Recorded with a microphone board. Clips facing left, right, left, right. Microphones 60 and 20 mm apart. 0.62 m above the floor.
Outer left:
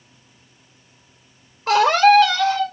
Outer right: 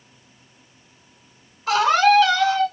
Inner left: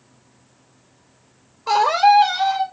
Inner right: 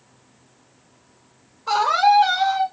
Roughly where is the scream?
Left.